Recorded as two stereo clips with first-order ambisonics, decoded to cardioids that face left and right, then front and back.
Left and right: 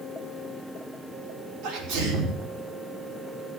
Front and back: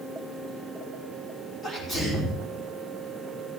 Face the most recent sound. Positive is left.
turn(degrees=-70)